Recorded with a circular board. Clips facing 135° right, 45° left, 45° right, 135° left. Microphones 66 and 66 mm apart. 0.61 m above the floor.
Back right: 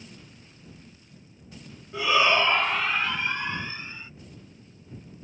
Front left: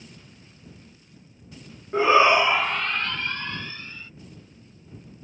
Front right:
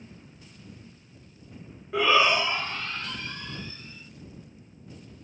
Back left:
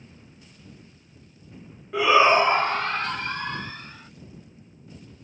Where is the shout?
45° left; by 4.1 s 155° left.